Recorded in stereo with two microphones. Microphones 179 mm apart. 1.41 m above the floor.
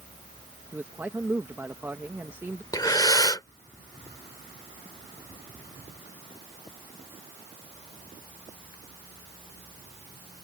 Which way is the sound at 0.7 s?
15° right (ahead or behind).